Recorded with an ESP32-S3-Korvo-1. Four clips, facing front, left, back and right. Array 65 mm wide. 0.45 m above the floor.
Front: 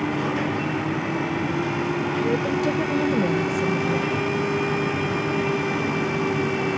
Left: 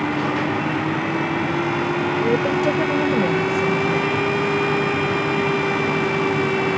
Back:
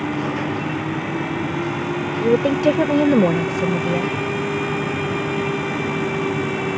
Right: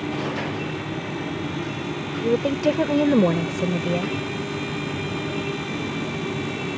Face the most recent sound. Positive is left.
turn(degrees=-130)